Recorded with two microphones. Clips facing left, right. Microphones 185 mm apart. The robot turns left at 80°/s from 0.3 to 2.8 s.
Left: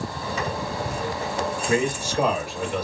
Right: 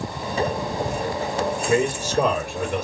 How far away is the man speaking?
About 2.5 m.